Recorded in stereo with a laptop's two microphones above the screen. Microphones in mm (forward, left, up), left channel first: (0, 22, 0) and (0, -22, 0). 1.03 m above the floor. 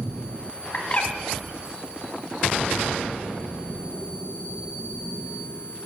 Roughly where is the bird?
Left.